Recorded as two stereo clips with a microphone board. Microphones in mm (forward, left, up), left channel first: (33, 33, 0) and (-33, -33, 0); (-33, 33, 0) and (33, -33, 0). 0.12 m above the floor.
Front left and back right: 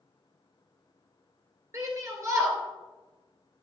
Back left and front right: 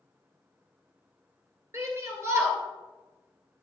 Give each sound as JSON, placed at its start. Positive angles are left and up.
{"t": 1.7, "sound": "a shout", "azimuth_deg": -90, "distance_m": 2.5}